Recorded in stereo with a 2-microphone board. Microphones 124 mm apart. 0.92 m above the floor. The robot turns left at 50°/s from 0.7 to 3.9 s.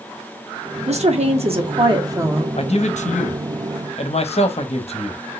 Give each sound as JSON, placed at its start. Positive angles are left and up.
{"t": 0.9, "sound": "a woman speaking", "azimuth_deg": -85, "distance_m": 1.3}
{"t": 2.6, "sound": "a man speaking", "azimuth_deg": 125, "distance_m": 1.0}